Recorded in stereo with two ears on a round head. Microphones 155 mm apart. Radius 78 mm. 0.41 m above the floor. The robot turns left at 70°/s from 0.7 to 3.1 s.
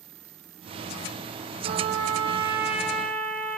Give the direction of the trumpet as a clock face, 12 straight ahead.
3 o'clock.